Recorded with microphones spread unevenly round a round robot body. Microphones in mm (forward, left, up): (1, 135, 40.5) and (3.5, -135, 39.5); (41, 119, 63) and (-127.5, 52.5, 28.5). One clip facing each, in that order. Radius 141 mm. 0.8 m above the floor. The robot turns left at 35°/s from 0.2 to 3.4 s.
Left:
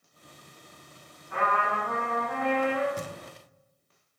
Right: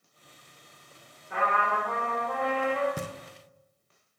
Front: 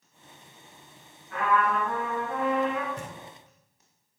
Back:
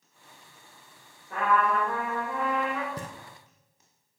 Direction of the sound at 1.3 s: 100° right.